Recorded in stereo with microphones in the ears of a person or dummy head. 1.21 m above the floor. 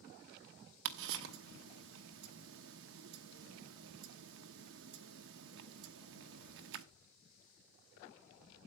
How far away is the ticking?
About 1.1 m.